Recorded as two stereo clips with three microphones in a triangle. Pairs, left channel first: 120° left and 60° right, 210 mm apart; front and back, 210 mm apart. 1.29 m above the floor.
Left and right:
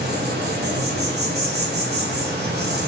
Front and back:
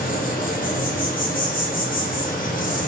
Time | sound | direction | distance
0.0 | an insect | 40° right | 0.8 m